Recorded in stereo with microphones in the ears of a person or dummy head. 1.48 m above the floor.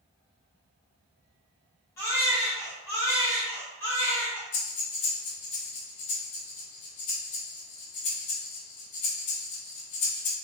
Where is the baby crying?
10° left (ahead or behind), 0.8 m.